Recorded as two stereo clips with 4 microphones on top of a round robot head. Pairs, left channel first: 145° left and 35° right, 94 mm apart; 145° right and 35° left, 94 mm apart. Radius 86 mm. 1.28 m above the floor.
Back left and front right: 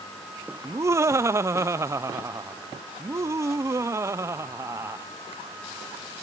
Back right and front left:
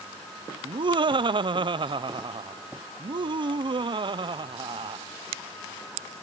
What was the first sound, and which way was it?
Laughter, 20° left.